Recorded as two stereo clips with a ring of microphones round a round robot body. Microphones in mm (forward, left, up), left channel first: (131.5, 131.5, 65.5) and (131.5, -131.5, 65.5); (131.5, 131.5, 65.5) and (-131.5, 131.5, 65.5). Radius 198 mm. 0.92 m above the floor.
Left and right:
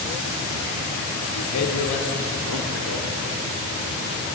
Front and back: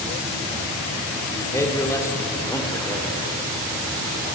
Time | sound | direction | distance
1.3 | a man speaking | 80° left | 3 m